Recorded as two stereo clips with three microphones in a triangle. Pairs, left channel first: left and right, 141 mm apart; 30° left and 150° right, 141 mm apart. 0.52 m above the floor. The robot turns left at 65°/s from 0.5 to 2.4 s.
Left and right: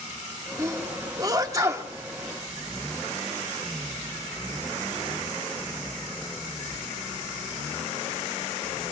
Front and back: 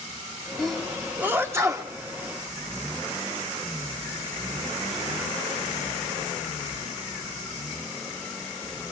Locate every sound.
0.6 s a sneeze: 50° right, 1.0 m; by 1.9 s 135° right, 1.0 m